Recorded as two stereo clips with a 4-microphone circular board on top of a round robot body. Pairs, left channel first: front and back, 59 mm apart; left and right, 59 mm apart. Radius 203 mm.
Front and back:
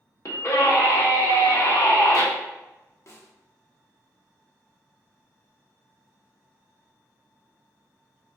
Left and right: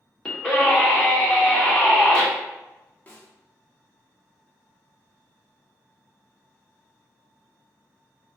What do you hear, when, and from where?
0.2 s a scream: 20° left, 2 m
3.1 s a snare drum: 30° left, 1.3 m